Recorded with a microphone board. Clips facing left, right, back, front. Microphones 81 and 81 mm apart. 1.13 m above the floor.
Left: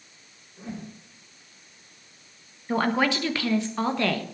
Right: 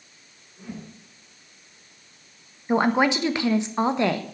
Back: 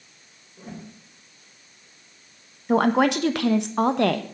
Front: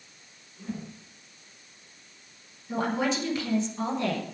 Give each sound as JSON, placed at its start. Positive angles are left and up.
{"t": 0.6, "sound": "a whoosh", "azimuth_deg": 150, "distance_m": 4.5}
{"t": 2.7, "sound": "a woman speaking", "azimuth_deg": -160, "distance_m": 1.2}